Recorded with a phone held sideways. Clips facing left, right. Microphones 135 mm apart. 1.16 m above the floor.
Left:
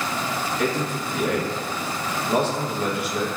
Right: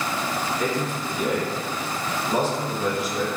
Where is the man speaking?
65° left (ahead or behind), 0.9 m.